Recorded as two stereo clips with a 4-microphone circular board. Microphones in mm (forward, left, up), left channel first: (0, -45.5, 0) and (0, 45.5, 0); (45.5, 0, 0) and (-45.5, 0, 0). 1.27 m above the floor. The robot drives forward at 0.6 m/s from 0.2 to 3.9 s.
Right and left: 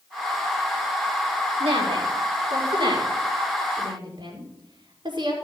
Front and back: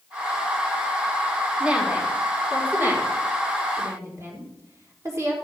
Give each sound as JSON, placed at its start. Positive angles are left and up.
{"t": 1.6, "sound": "a woman speaking", "azimuth_deg": 100, "distance_m": 3.5}